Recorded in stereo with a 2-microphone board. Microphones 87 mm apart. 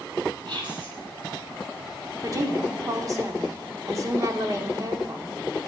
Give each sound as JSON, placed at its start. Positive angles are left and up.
{"t": 0.5, "sound": "whispering", "side_deg": -65, "distance_m": 2.5}
{"t": 2.2, "sound": "a woman speaking", "side_deg": -40, "distance_m": 1.2}